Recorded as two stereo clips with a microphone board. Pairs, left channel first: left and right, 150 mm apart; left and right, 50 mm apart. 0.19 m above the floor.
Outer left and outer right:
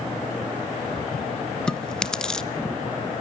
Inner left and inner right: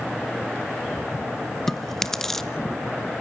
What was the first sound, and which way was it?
Chewing, 5° left (ahead or behind).